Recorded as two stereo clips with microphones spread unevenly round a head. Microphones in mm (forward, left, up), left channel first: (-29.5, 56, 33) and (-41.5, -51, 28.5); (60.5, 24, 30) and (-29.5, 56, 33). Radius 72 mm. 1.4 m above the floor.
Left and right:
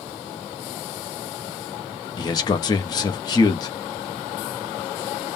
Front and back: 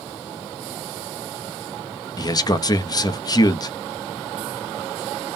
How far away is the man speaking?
About 0.8 m.